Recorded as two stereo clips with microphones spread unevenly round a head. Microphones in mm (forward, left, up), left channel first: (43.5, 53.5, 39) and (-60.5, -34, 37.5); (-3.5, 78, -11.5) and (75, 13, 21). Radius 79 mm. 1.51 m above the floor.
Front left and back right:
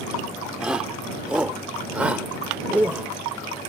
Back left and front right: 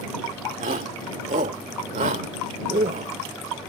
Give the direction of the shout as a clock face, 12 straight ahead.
2 o'clock.